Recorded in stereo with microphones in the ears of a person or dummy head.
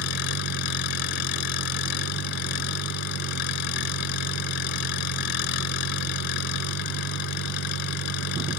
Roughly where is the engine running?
Left.